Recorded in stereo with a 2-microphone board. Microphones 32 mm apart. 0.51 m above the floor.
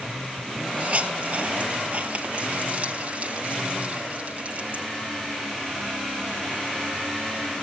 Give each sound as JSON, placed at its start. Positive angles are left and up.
{"t": 0.8, "sound": "a hiss", "side_deg": -45, "distance_m": 4.0}